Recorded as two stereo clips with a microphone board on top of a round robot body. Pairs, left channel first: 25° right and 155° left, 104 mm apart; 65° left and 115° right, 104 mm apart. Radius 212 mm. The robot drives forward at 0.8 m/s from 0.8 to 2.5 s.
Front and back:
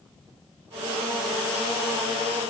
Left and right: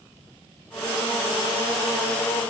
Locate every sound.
Only background noise.